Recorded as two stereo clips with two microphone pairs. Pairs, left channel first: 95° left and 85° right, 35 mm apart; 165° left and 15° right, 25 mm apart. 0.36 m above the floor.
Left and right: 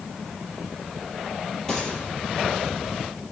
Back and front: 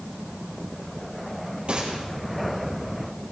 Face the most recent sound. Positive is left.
turn(degrees=20)